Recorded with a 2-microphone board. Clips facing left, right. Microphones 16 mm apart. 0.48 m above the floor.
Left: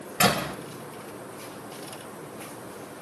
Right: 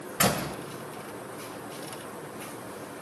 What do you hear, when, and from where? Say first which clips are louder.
0.2 s a door slam: left 3 dB; 60° left (ahead or behind), 1.3 m